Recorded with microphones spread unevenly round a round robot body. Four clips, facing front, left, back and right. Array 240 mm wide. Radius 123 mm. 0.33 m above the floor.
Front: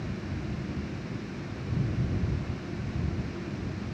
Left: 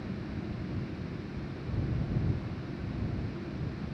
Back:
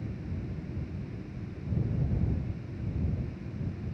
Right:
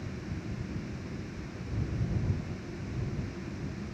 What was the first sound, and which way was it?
Only background noise.